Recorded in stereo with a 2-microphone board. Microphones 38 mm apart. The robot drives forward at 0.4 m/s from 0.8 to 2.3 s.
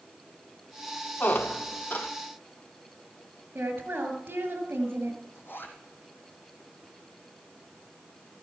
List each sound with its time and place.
1.2 s a squeak: 60° left (ahead or behind), 0.8 m; by 2.1 s 40° left (ahead or behind), 1.0 m
3.5 s a woman speaking: 65° right (ahead or behind), 4 m
5.3 s a zipper: 70° left (ahead or behind), 2.5 m